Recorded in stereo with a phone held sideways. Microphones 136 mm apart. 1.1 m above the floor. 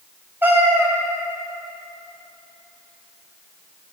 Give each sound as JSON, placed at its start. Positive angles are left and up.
{"t": 0.4, "sound": "a cat meowing", "side_deg": -15, "distance_m": 0.7}